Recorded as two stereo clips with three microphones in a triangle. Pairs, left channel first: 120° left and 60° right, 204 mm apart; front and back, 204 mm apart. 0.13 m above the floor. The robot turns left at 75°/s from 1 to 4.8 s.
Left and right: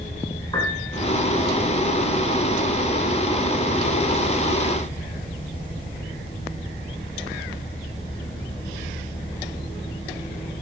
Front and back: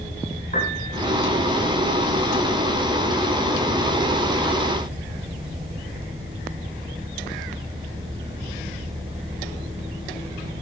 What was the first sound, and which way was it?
A piano, 50° left.